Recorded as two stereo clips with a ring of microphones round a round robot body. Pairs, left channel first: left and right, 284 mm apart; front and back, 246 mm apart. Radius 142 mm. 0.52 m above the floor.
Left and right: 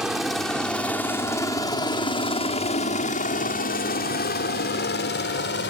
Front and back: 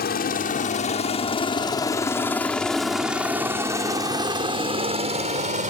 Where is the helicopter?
5° right; by 5.7 s 130° left.